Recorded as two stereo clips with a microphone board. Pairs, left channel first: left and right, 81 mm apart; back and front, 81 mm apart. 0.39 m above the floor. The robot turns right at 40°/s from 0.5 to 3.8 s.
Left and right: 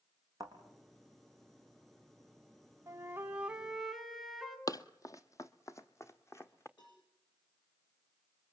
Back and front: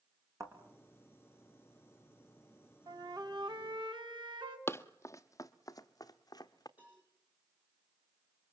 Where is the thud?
50° right, 4.5 m; by 0.6 s 45° right, 4.5 m.